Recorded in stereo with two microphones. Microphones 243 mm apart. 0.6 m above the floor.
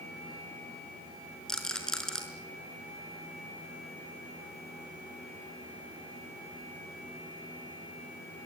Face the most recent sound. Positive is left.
turn(degrees=5)  # may be behind; listen again after turning